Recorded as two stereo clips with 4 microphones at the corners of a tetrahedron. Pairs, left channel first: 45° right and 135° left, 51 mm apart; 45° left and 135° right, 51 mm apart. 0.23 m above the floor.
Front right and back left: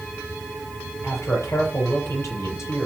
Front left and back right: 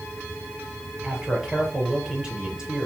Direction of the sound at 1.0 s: 60° right.